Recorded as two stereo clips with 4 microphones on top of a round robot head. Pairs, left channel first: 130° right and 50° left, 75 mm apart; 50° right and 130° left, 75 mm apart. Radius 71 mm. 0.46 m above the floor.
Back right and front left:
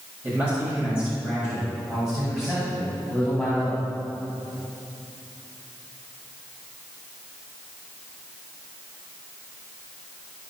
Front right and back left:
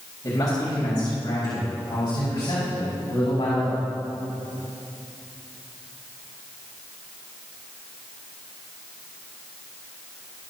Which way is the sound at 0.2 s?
15° right.